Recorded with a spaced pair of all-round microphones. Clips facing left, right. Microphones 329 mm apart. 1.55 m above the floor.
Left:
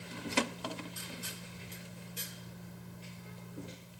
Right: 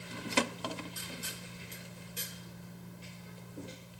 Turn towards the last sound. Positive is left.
No sound to turn to.